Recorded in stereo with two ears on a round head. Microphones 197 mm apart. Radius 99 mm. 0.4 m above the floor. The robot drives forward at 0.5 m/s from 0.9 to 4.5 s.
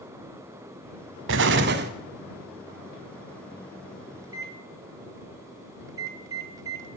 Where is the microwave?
15° right (ahead or behind), 1.6 m.